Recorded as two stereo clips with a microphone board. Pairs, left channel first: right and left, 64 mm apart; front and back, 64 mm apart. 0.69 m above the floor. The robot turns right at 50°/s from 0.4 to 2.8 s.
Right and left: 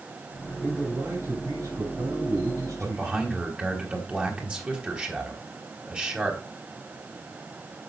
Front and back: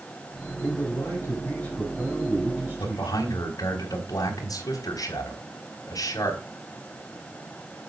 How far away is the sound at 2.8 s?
About 3.5 m.